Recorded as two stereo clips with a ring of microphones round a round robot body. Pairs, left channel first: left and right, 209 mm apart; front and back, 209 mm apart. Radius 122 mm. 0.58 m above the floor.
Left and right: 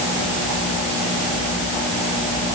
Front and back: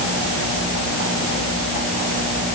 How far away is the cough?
I don't hear a cough.